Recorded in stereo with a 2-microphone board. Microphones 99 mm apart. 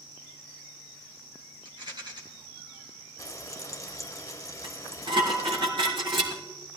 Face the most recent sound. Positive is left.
turn(degrees=-55)  # may be behind; listen again after turning